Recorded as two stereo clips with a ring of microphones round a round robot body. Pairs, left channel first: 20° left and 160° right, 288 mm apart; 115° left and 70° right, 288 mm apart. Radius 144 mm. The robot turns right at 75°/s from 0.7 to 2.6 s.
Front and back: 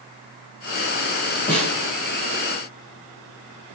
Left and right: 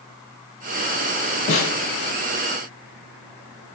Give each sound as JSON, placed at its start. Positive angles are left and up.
{"t": 1.5, "sound": "a snare drum", "azimuth_deg": 70, "distance_m": 1.3}